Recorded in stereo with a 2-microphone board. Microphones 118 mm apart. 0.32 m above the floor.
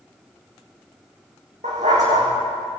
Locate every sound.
1.6 s a dog barking: 85° right, 9 m